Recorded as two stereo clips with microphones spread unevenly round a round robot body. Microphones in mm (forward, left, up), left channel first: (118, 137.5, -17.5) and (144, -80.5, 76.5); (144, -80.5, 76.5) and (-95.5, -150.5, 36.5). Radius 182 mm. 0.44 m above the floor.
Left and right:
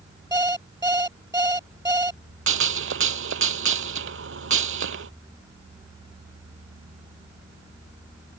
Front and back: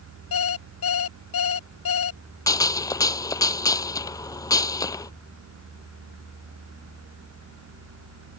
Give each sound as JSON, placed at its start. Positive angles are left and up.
{"t": 0.3, "sound": "an alarm clock", "azimuth_deg": -10}
{"t": 2.5, "sound": "a gunshot", "azimuth_deg": -60}